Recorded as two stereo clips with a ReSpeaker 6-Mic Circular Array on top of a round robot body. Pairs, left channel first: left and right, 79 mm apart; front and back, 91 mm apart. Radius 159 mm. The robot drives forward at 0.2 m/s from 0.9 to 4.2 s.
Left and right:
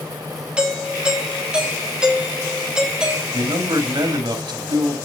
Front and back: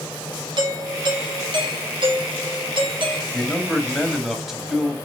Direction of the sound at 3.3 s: 85° right.